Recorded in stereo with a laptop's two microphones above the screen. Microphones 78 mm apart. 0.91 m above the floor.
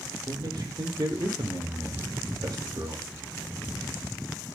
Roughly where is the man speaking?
Right.